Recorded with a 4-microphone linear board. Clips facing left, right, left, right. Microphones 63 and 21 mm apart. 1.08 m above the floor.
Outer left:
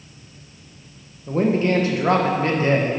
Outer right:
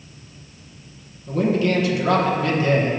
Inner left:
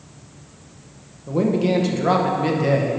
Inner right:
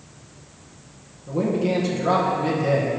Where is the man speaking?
35° left (ahead or behind), 0.9 m.